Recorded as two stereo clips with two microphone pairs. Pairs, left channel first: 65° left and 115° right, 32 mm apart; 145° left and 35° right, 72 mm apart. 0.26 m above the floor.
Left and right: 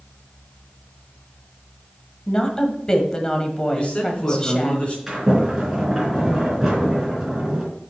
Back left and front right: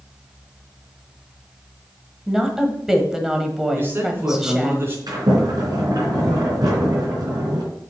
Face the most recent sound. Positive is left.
turn(degrees=-35)